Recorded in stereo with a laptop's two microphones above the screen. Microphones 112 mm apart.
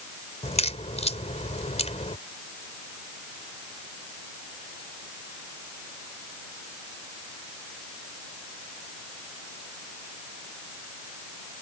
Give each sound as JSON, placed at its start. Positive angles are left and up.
{"t": 0.4, "sound": "a crack", "side_deg": 70}